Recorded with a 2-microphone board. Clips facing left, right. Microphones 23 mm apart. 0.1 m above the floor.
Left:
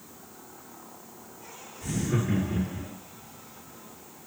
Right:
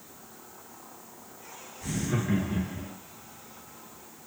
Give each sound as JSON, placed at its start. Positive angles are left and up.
{"t": 1.8, "sound": "laughter", "side_deg": -10, "distance_m": 1.5}